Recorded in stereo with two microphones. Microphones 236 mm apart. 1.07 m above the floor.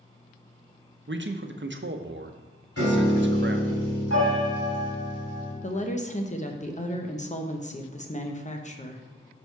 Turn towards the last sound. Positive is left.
turn(degrees=30)  # may be behind; listen again after turning